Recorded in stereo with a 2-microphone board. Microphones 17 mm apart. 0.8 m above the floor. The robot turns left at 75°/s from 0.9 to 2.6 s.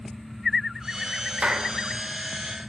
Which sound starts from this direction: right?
A clap, at 1.4 s.